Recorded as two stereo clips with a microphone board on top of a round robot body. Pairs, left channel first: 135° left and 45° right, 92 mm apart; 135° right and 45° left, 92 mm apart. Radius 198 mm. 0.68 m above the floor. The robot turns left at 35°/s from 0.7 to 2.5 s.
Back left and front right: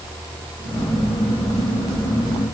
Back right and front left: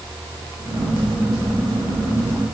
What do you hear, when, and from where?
Only background noise.